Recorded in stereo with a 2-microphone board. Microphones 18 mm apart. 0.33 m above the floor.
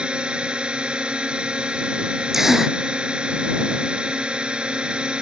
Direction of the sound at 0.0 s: 60° right (ahead or behind).